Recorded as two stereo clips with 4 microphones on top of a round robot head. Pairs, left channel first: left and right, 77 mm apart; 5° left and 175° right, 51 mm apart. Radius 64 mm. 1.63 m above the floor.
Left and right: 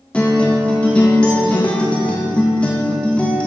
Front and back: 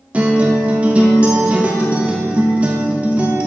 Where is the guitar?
160° left, 0.9 m.